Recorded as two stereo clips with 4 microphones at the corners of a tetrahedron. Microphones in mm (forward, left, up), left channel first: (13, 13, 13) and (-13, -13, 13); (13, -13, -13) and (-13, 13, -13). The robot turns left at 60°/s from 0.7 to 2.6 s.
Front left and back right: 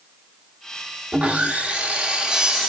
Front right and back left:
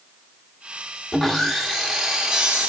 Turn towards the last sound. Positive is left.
turn(degrees=160)